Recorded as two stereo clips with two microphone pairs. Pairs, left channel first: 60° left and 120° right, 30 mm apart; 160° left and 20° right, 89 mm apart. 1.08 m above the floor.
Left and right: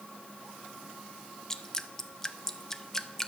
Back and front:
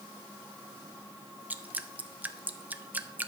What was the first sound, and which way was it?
Dripping, 25° left.